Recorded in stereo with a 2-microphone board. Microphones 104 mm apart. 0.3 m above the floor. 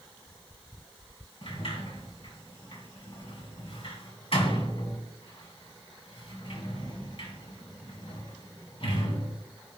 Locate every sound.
1.4 s a sliding door: 60° left (ahead or behind), 2.5 m